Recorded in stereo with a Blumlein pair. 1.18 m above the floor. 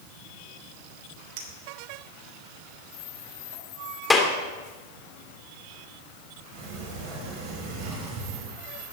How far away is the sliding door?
About 5 m.